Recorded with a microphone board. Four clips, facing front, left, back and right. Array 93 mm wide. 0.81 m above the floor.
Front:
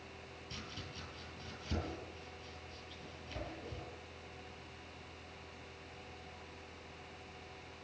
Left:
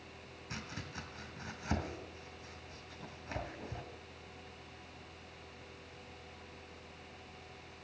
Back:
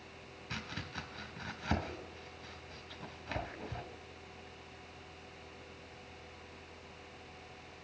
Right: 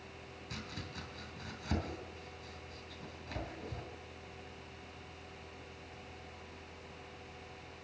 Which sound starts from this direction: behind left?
Chopping, at 0.5 s.